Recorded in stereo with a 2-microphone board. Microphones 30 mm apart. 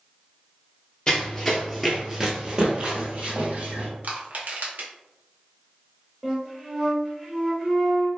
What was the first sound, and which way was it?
Running footsteps, 25° left (ahead or behind).